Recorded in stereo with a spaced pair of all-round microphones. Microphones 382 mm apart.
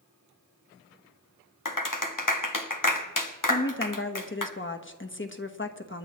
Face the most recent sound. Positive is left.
turn(degrees=30)  # may be behind; listen again after turning